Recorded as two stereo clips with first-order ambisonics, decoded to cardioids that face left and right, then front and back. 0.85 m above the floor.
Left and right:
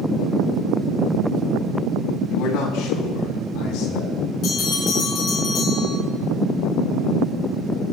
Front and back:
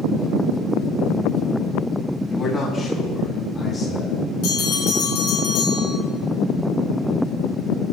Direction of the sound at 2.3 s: 65° left.